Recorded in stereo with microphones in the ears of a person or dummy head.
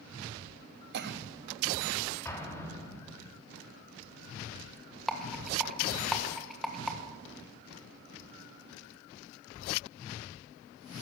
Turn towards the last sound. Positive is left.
turn(degrees=0)  # may be behind; listen again after turning